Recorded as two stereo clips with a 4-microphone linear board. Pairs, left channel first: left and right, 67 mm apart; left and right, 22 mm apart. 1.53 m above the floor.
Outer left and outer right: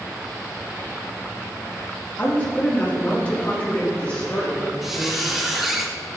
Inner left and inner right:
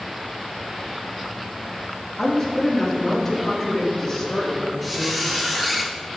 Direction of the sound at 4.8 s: 5° right (ahead or behind).